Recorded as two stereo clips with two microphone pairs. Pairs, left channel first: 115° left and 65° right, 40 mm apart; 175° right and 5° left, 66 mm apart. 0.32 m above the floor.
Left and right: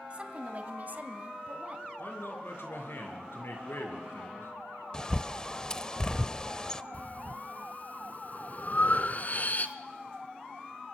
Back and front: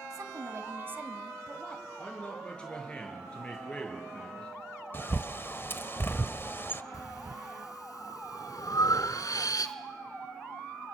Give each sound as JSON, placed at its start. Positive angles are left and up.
{"t": 0.1, "sound": "a woman speaking", "azimuth_deg": -5, "distance_m": 2.0}
{"t": 2.0, "sound": "a man speaking", "azimuth_deg": 110, "distance_m": 6.0}
{"t": 4.9, "sound": "a bird", "azimuth_deg": 175, "distance_m": 0.7}
{"t": 6.9, "sound": "breathing", "azimuth_deg": 165, "distance_m": 1.2}